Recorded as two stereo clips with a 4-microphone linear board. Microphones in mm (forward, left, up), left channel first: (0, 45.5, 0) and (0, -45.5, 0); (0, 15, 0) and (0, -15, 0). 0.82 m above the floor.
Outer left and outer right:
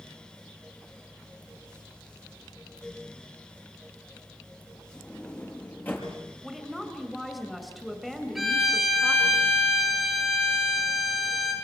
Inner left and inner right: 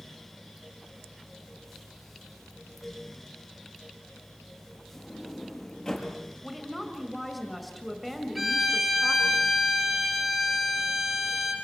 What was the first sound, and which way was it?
A sliding door, 20° left (ahead or behind).